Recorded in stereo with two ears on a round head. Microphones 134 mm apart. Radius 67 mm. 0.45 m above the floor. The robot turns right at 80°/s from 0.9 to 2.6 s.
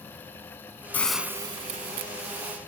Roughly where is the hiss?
Behind.